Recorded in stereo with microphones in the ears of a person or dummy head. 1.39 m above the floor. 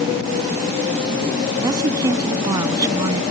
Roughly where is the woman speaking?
Centre.